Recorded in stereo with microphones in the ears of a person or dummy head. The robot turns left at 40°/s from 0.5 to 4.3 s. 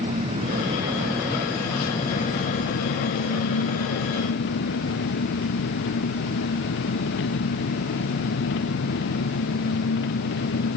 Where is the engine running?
145° right; by 10.8 s 65° left.